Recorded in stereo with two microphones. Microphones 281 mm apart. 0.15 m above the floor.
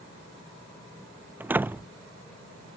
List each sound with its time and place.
1.4 s a door slam: 5° right (ahead or behind)